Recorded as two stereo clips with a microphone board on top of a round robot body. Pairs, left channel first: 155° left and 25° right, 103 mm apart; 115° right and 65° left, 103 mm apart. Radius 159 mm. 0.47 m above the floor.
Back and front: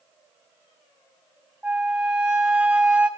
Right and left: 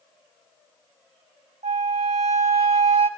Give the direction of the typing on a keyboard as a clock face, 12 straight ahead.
No typing on a keyboard in this recording.